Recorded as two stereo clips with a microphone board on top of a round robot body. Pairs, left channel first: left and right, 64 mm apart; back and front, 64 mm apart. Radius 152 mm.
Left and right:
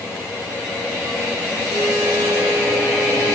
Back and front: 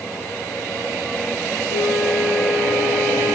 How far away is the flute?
About 9.5 m.